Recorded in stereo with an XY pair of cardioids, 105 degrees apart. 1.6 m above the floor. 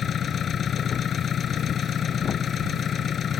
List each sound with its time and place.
0.0 s an engine running: 55° left